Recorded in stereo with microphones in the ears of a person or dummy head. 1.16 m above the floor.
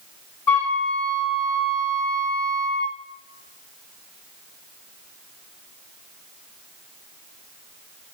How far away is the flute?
About 2 m.